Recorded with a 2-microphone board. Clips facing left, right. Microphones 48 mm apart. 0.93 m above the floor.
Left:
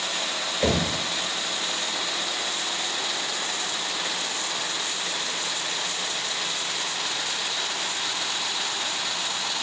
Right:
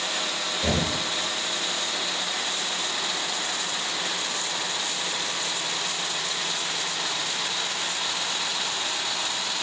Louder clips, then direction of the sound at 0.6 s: Left 3 dB; 60° left (ahead or behind).